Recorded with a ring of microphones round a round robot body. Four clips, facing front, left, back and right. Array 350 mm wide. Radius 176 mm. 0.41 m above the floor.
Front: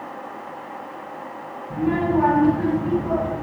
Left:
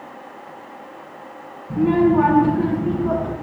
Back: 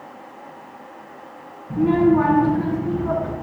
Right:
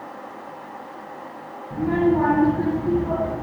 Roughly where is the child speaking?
Behind left.